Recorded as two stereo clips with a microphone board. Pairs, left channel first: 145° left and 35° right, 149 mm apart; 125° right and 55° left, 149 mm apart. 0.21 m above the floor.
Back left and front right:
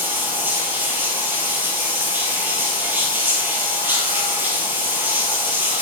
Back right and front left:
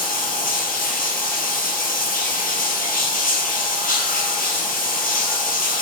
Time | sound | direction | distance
0.0 | running water | 110° right | 1.5 m